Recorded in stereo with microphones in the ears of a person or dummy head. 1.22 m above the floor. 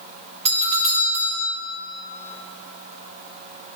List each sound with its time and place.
0.5 s a doorbell: 35° right (ahead or behind), 0.8 m